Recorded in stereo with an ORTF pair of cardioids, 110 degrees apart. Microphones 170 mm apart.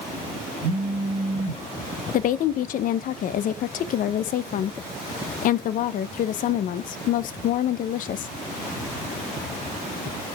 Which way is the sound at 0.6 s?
30° right.